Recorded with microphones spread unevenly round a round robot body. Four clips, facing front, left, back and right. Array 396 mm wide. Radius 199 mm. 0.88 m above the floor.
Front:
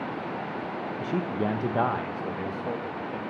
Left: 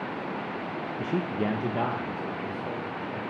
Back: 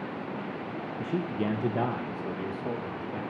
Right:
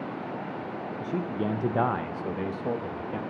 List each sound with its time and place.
1.0 s a man speaking: 80° left, 0.9 m; by 3.2 s 90° right, 1.6 m